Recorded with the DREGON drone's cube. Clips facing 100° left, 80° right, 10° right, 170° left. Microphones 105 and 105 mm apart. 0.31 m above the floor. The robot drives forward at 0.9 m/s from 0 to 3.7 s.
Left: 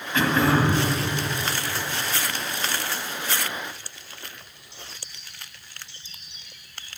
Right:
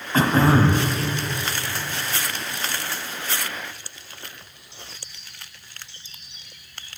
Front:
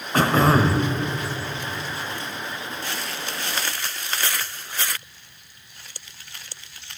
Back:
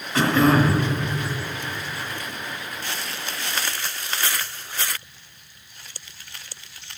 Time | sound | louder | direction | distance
0.1 | throat clearing | right 3 dB, even | 40° right | 1.2 m